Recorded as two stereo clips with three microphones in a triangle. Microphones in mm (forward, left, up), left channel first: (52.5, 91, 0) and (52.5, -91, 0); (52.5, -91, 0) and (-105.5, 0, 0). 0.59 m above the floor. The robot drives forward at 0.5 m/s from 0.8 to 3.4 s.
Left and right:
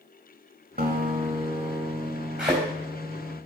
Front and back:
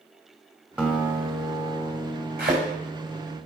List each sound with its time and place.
0.8 s a guitar: 125° right, 1.4 m; by 3.4 s 150° right, 2.5 m
2.4 s a thud: 175° right, 5 m